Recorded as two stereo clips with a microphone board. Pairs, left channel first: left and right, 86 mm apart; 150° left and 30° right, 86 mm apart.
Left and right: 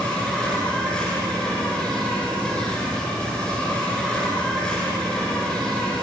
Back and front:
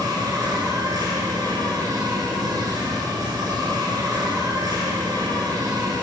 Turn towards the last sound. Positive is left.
turn(degrees=10)